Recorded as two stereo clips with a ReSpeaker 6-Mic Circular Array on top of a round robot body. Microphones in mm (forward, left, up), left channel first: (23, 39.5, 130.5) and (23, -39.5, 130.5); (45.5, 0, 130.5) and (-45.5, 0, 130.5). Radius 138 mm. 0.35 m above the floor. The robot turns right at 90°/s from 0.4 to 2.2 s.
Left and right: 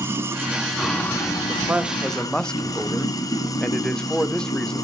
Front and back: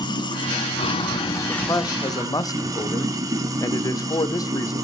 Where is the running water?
30° right, 1.6 m; by 4.8 s 130° left, 1.6 m.